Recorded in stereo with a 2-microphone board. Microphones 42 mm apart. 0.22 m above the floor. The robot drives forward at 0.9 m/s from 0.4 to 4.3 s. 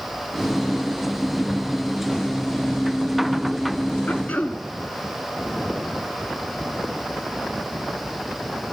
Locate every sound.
4.1 s throat clearing: 45° left (ahead or behind), 0.7 m; by 4.6 s 35° left (ahead or behind), 0.9 m